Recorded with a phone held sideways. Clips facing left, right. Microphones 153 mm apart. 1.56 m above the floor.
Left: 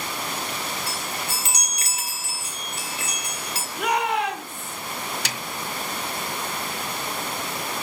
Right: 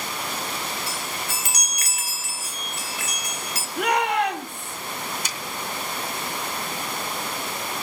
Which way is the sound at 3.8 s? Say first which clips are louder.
Right 2 dB; 70° right (ahead or behind).